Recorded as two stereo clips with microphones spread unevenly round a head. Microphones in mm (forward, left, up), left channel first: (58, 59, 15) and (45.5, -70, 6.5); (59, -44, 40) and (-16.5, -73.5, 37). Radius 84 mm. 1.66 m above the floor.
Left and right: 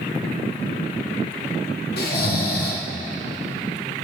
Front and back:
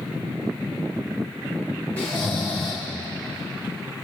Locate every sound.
2.0 s snoring: 100° left, 1.7 m